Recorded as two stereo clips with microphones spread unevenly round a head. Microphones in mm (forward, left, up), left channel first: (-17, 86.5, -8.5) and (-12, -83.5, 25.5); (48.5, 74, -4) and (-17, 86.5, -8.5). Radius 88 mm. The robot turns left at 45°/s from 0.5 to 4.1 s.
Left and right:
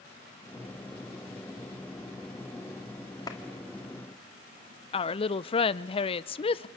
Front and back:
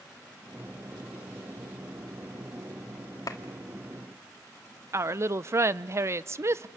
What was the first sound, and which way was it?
A clap, 20° left.